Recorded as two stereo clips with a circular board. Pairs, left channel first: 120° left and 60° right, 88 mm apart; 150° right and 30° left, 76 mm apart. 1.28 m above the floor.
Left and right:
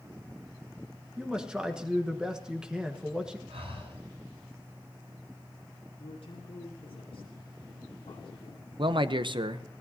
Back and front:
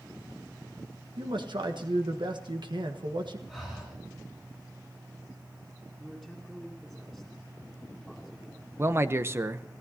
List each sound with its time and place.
1.2 s a man speaking: 20° left, 1.4 m
3.5 s breathing: 60° right, 10 m
6.0 s a man speaking: 110° left, 2.5 m
8.8 s a man speaking: 30° right, 0.8 m